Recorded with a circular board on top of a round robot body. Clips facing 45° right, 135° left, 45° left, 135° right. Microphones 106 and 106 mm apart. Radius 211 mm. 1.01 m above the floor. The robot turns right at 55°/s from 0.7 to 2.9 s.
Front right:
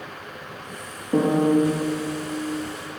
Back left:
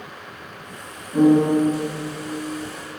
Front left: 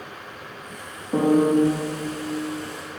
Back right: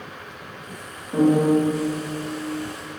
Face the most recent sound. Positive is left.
turn(degrees=80)